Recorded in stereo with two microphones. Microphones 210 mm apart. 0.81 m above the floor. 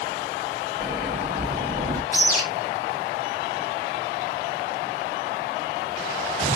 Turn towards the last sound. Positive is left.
turn(degrees=40)  # may be behind; listen again after turning